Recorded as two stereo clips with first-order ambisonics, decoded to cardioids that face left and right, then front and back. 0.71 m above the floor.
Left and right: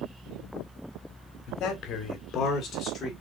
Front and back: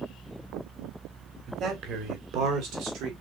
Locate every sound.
1.5 s a man speaking: 125° left, 1.8 m; by 3.1 s 160° left, 2.5 m